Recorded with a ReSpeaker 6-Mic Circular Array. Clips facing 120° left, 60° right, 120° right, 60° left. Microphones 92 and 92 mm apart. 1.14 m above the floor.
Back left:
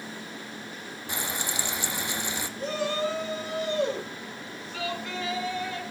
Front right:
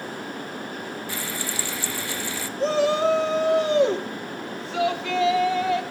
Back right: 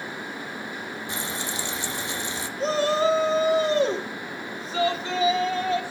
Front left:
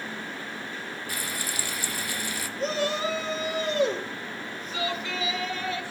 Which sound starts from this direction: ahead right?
A shout, at 2.6 s.